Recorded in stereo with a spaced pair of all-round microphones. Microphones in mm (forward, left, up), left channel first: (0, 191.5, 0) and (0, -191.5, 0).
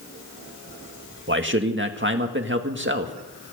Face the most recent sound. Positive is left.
turn(degrees=-30)  # may be behind; listen again after turning